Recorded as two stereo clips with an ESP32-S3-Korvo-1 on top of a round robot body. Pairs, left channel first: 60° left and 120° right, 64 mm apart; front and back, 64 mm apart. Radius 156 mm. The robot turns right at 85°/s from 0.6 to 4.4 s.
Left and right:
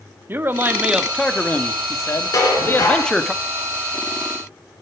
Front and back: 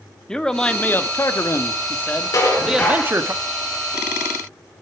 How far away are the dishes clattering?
About 4.5 m.